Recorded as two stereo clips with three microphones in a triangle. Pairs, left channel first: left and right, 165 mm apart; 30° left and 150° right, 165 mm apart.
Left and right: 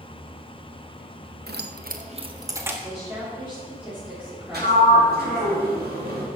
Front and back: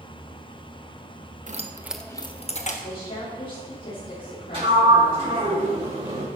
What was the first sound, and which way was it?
Keys jangling, 110° right.